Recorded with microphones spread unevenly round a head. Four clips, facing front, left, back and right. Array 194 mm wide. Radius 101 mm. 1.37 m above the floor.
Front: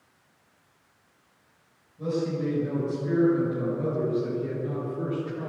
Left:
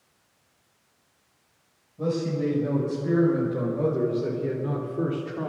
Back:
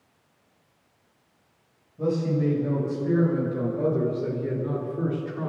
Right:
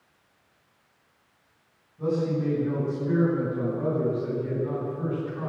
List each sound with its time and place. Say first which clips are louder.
2.0 s a man speaking: even, back 3 dB; 135° left, 8 m; by 5.5 s 115° left, 4 m